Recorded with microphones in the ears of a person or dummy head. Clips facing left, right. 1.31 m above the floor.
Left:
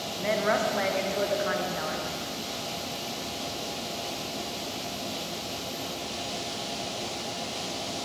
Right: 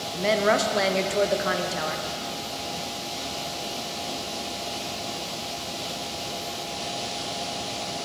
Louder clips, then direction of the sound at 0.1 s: Right 4 dB; 45° right (ahead or behind).